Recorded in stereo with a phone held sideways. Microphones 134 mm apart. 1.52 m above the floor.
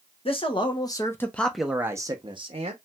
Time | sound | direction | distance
0.2 | a man speaking | 45° left (ahead or behind) | 1.0 m